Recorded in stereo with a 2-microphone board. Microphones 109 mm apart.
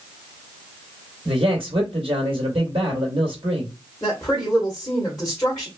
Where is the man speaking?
60° right (ahead or behind), 2 m.